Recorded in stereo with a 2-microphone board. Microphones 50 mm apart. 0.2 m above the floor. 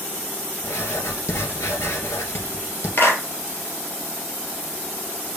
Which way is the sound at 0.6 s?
65° left (ahead or behind).